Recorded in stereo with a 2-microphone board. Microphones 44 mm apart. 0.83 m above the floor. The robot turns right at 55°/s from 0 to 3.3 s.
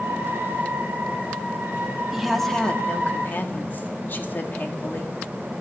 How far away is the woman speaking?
About 1.7 m.